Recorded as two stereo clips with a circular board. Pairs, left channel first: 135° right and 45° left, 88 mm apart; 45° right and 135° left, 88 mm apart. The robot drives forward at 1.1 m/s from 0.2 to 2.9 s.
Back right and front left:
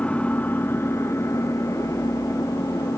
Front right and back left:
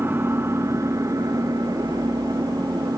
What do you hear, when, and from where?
0.0 s an engine running: 165° left, 1.4 m; by 3.0 s straight behind, 4 m